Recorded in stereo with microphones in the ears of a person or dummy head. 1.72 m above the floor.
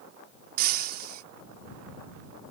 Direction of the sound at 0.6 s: 50° right (ahead or behind).